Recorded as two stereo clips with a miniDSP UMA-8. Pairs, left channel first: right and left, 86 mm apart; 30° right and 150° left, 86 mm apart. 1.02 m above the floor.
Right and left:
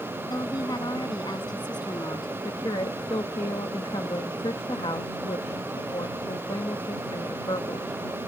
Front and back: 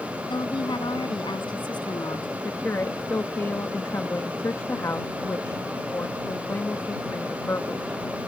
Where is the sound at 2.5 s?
85° right.